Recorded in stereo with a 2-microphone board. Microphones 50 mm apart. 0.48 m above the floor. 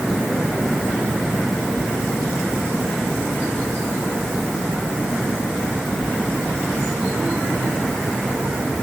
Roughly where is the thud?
I don't hear a thud.